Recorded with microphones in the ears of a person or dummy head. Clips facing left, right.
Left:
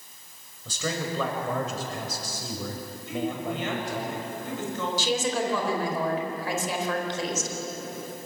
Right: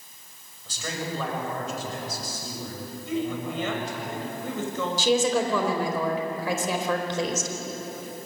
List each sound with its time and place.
0.7 s a man speaking: 85° left, 5.5 m; by 4.1 s 40° left (ahead or behind), 5.5 m
3.1 s a woman speaking: 85° right, 7 m
5.0 s a woman speaking: 85° right, 4 m